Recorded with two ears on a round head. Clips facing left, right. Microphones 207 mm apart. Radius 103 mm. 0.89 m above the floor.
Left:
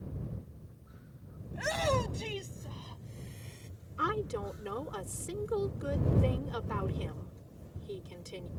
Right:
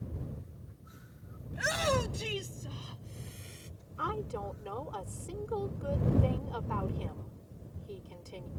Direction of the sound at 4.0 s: 30° left (ahead or behind).